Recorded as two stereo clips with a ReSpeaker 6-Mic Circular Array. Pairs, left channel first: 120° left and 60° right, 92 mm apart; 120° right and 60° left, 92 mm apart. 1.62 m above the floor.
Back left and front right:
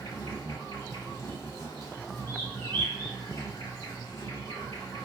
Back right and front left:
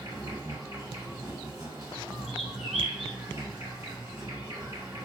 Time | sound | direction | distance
0.0 | an insect | 80° left | 1.7 m
2.3 | a bird | 145° left | 1.0 m